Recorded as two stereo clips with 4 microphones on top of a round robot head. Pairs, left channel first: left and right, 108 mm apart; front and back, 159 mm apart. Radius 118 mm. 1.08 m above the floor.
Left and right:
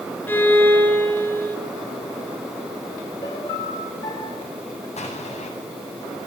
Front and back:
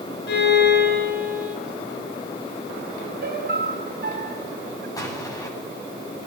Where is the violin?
15° left, 5.5 m.